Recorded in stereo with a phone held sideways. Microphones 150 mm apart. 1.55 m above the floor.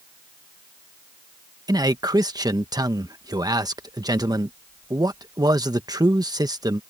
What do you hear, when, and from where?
1.7 s a man speaking: 25° right (ahead or behind)